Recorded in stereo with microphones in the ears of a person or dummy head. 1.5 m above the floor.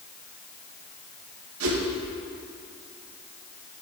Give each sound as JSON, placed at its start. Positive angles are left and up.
{"t": 1.6, "sound": "a whoosh", "side_deg": -90, "distance_m": 2.0}